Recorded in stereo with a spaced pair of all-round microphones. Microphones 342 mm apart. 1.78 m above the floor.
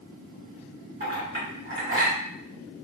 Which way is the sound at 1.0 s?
25° right (ahead or behind).